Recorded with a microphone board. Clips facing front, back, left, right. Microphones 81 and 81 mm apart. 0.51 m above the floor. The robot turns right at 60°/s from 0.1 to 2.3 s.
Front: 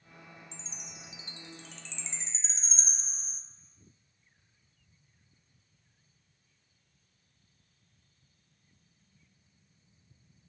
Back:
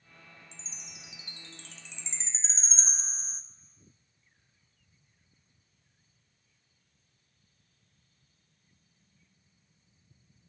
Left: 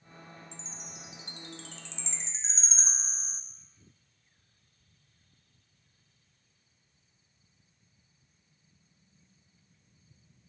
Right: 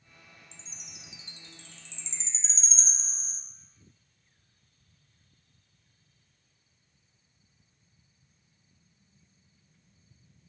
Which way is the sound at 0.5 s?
15° left.